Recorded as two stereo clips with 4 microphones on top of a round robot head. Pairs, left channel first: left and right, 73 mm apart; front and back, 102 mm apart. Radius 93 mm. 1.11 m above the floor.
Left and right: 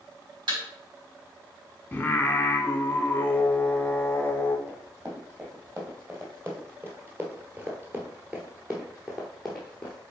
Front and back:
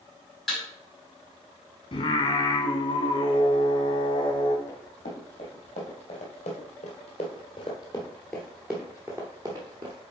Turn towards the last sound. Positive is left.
turn(degrees=170)